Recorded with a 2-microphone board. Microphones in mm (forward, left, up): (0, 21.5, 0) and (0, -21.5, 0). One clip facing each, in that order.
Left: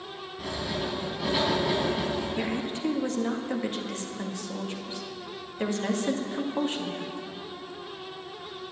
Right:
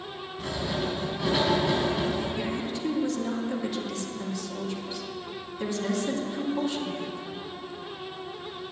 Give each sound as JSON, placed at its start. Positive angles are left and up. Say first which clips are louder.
{"t": 0.4, "sound": "writing", "louder": "right 2 dB", "side_deg": 5, "distance_m": 4.0}
{"t": 2.4, "sound": "a woman speaking", "louder": "left 1 dB", "side_deg": 35, "distance_m": 1.7}